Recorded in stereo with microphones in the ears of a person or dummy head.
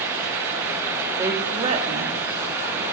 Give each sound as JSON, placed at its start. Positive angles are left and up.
{"t": 1.2, "sound": "a woman speaking", "side_deg": -20, "distance_m": 2.0}